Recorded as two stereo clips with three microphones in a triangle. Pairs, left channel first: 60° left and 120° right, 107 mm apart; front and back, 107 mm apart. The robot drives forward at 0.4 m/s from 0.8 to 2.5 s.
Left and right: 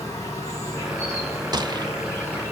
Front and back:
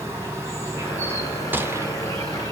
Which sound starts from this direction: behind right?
A gunshot, at 1.5 s.